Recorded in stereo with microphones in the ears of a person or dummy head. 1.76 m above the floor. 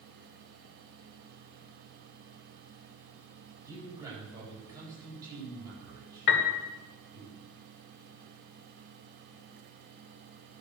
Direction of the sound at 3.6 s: 20° right (ahead or behind).